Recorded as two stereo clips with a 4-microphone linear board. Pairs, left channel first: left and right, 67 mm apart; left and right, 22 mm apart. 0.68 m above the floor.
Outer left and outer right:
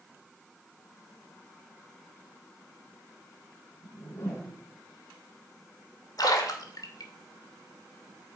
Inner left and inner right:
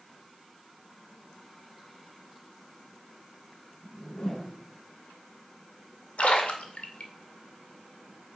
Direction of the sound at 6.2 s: 70° left (ahead or behind).